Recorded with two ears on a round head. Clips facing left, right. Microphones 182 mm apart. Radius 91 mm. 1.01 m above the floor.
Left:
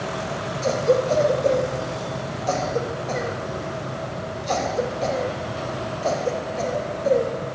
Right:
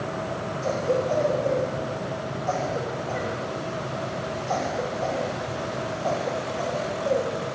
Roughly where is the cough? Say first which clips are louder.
Left 5 dB; left.